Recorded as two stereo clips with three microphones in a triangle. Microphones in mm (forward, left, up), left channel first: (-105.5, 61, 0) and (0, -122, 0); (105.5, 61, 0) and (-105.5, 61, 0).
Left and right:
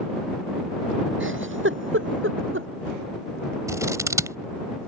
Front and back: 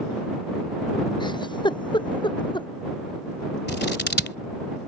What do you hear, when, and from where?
1.2 s a giggle: 65° right
3.7 s scissors: 10° left